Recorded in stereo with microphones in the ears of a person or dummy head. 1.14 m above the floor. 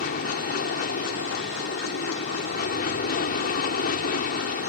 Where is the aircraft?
50° left (ahead or behind).